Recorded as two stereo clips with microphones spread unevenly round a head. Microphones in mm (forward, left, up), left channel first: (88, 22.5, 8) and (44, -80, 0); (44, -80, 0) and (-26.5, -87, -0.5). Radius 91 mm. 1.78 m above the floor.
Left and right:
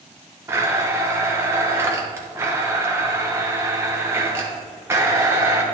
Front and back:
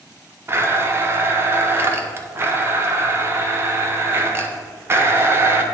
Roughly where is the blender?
Behind.